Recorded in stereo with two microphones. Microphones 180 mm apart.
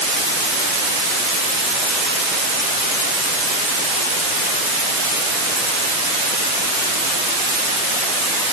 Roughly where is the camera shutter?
I don't hear a camera shutter.